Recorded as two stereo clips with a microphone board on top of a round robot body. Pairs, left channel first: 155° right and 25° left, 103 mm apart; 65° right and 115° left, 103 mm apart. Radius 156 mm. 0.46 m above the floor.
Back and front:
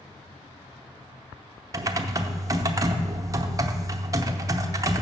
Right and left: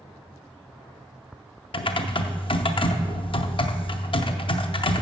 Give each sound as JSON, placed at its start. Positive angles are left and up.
{"t": 1.7, "sound": "typing on a keyboard", "azimuth_deg": -35, "distance_m": 0.7}